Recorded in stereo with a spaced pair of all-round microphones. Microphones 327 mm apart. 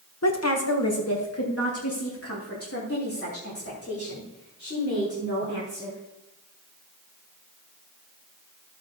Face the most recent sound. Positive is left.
turn(degrees=45)  # may be behind; listen again after turning